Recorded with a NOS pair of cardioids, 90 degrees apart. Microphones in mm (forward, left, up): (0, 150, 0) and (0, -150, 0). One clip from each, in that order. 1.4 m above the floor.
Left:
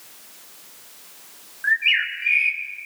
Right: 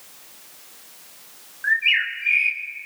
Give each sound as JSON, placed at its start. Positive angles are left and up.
{"t": 1.6, "sound": "a bird", "azimuth_deg": 0, "distance_m": 1.4}